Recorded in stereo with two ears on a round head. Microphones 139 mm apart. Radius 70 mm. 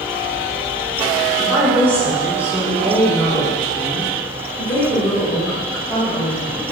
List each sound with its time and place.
1.4 s a woman speaking: 15° right (ahead or behind), 1.6 m; by 6.6 s 25° left (ahead or behind), 2.5 m